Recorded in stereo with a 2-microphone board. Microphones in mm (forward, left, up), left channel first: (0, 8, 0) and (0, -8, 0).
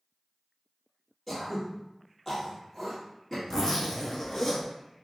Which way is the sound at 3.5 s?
35° left (ahead or behind).